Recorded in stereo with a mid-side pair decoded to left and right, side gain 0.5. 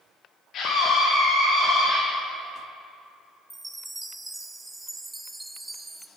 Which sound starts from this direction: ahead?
A chime, at 3.5 s.